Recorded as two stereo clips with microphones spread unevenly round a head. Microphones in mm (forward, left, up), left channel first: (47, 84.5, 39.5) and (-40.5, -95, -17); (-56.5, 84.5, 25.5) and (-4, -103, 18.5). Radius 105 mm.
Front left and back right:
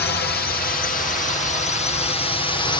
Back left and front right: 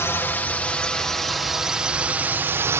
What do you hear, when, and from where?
0.0 s a drone: 30° left; by 2.8 s 15° right